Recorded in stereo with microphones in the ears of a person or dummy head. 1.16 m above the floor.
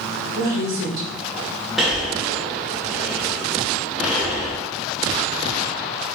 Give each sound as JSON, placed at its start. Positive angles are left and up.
{"t": 0.3, "sound": "a woman speaking", "side_deg": -45, "distance_m": 1.0}
{"t": 1.8, "sound": "breathing", "side_deg": 5, "distance_m": 0.8}